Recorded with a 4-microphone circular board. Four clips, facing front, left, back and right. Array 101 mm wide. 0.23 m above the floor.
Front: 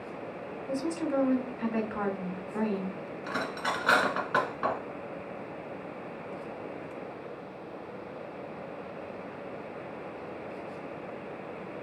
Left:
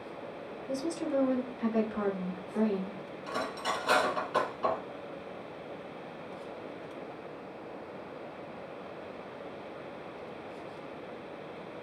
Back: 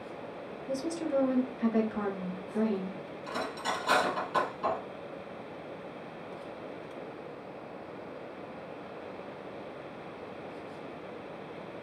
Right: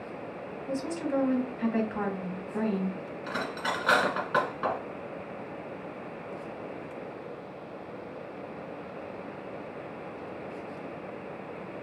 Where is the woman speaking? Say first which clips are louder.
Right 1 dB, front 1 dB; 40° right, 1.4 m.